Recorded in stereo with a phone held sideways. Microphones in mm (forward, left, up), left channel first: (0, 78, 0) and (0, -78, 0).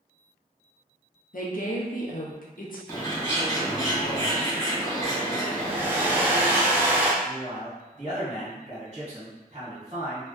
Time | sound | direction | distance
1.3 | a woman speaking | 65° left (ahead or behind) | 0.5 m
2.9 | a bird | 25° left (ahead or behind) | 1.5 m
5.6 | a hair dryer | 15° right (ahead or behind) | 0.5 m
7.2 | a man speaking | 45° right (ahead or behind) | 1.3 m